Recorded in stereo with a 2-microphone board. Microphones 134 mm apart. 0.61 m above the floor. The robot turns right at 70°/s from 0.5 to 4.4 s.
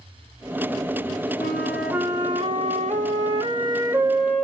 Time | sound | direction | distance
1.4 | a flute | 160° left | 1.0 m